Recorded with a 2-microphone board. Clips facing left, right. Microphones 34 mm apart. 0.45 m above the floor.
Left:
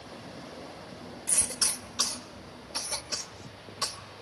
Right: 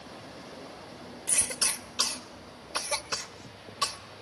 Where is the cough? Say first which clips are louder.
Right 2 dB; 30° right (ahead or behind), 1.2 m.